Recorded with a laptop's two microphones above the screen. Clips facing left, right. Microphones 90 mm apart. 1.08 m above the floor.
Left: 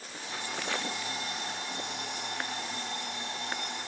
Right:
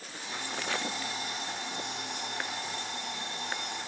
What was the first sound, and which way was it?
An alarm clock, 65° left (ahead or behind).